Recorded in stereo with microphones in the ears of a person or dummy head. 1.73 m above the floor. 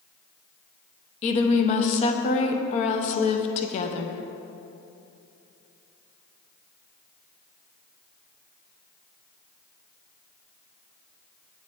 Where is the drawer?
No drawer in this recording.